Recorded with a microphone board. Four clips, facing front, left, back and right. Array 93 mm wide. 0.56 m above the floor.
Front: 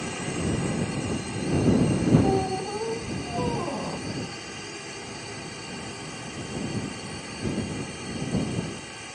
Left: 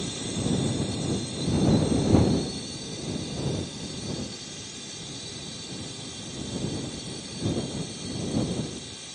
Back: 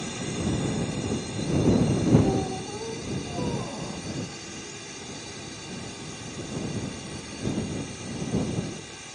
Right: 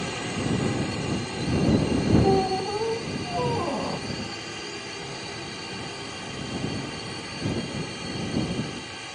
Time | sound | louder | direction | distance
0.0 | a drone | right 2 dB, front 1 dB | 65° right | ?
2.2 | a squeak | right 5 dB, front 2 dB | 65° right | ?